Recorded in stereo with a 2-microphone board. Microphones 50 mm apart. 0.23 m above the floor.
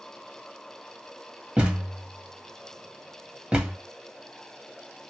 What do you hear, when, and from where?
1.6 s a thud: 20° right (ahead or behind), 2 m